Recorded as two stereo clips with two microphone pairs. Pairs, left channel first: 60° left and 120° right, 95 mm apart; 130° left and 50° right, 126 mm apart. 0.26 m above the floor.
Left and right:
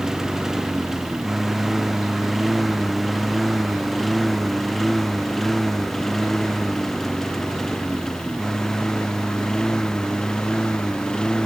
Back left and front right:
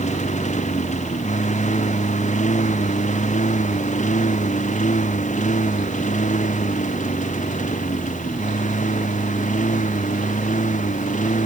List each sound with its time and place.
0.0 s a lawn mower: 150° left; by 11.5 s 140° left